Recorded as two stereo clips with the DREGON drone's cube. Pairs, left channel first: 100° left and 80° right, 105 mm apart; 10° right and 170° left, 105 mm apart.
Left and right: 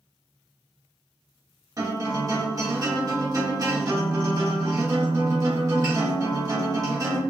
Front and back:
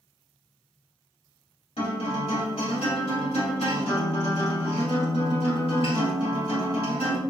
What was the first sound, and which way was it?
A guitar, 25° right.